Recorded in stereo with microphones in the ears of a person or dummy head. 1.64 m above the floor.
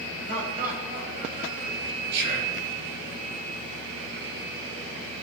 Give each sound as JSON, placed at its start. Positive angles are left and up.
{"t": 0.3, "sound": "laughter", "side_deg": -50, "distance_m": 9.0}
{"t": 2.1, "sound": "whispering", "side_deg": -70, "distance_m": 6.5}